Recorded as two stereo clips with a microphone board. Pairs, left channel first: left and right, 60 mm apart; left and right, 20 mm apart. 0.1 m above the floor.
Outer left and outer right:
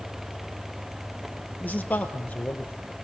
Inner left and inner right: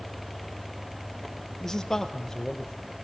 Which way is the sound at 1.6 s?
25° left (ahead or behind).